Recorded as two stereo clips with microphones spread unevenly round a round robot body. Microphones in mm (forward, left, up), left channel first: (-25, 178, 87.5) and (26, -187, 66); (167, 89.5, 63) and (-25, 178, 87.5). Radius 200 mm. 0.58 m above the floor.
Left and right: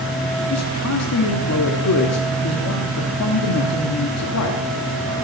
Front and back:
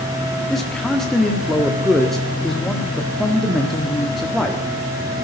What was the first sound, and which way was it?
A man speaking, 60° left.